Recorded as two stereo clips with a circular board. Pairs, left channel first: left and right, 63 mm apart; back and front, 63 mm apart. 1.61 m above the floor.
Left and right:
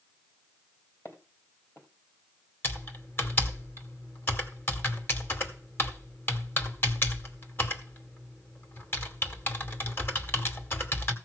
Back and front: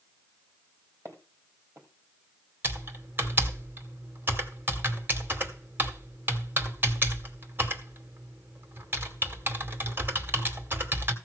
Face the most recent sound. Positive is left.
turn(degrees=45)